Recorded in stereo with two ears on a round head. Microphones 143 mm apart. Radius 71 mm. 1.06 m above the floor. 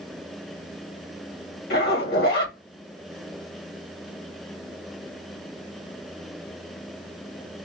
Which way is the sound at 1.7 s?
65° left (ahead or behind).